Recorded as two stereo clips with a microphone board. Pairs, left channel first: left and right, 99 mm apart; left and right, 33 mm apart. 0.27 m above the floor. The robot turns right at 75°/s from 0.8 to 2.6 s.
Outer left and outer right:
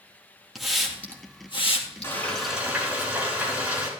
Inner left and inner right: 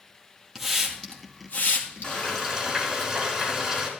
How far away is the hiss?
About 2 m.